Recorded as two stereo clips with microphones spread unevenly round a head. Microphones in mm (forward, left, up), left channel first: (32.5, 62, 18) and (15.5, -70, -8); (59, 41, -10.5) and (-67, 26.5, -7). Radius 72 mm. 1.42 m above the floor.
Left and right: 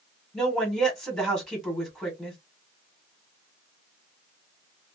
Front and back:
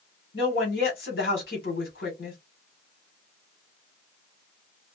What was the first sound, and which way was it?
A woman speaking, 10° right.